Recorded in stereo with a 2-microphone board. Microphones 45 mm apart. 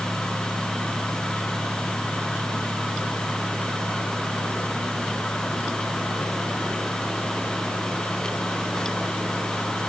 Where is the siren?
I don't hear a siren.